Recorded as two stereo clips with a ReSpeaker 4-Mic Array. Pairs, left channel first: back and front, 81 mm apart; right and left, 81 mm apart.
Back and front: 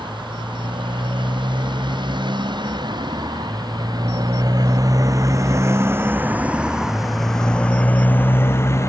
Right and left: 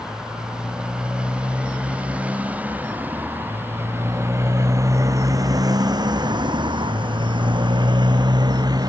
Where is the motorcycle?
10° left; by 8.9 s 125° left.